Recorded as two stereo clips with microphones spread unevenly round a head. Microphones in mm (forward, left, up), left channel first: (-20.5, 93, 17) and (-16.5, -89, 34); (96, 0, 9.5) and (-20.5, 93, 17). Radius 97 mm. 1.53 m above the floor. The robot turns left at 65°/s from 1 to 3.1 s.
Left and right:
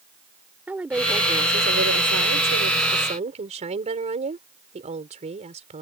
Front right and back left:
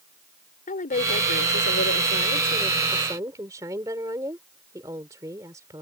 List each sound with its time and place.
0.7 s a woman speaking: 5° right; by 5.8 s 145° right